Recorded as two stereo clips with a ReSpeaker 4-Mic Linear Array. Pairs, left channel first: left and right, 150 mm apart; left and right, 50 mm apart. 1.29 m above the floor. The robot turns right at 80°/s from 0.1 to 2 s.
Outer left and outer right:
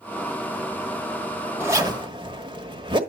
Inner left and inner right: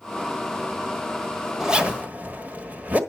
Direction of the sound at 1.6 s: 15° right (ahead or behind).